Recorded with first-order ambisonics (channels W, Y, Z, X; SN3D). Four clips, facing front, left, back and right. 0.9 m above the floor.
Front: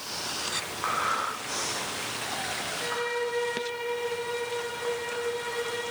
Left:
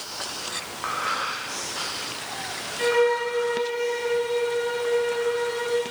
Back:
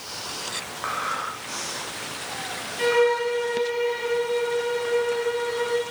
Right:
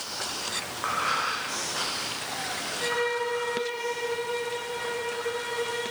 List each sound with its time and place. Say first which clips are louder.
2.8 s a violin: left 7 dB, back 12 dB; 145° left, 3 m